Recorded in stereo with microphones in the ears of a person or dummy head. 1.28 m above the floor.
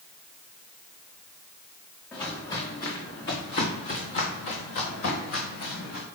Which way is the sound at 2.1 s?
20° left (ahead or behind).